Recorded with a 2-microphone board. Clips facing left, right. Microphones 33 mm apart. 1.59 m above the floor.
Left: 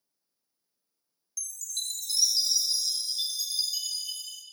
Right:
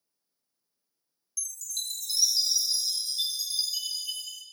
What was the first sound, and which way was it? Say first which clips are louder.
A chime: even; 5° right (ahead or behind).